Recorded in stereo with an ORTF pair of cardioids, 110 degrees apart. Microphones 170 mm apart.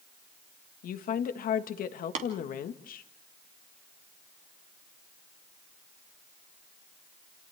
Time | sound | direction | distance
0.8 | a woman speaking | 55° left | 1.6 m
2.1 | tapping | 45° right | 3 m